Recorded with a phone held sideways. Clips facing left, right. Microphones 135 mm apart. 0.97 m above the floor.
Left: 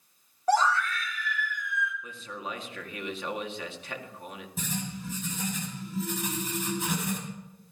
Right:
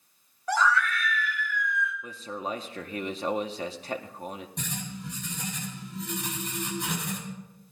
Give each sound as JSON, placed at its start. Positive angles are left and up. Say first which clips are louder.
{"t": 0.5, "sound": "a scream", "louder": "left 1 dB", "side_deg": 35, "distance_m": 3.0}
{"t": 2.0, "sound": "a man speaking", "louder": "right 4 dB", "side_deg": -35, "distance_m": 1.8}
{"t": 4.6, "sound": "writing", "louder": "left 2 dB", "side_deg": 5, "distance_m": 7.0}